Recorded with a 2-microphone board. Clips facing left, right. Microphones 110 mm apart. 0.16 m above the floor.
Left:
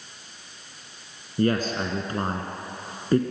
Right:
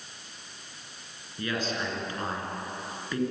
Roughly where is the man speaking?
Left.